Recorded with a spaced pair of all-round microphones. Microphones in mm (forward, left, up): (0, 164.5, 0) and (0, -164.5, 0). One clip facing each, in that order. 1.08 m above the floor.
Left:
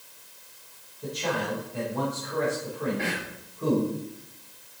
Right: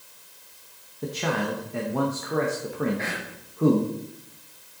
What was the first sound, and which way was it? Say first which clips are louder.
A man speaking: right 2 dB; 75° right (ahead or behind).